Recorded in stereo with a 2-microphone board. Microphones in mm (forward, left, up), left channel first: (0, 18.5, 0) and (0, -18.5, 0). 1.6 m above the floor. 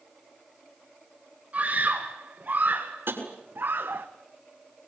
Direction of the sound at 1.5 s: 35° right (ahead or behind).